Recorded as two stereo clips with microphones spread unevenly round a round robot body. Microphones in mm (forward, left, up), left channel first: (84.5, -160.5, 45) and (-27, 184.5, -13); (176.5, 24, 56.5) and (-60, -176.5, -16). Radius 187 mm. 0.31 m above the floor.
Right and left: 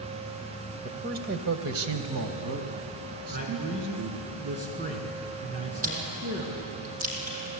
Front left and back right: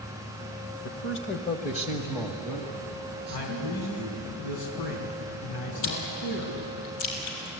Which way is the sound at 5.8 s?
40° left.